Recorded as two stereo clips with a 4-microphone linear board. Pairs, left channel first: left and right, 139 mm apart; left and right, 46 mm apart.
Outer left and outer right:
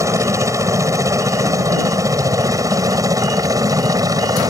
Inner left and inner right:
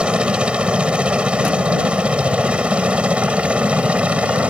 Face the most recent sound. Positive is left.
turn(degrees=-25)  # may be behind; listen again after turning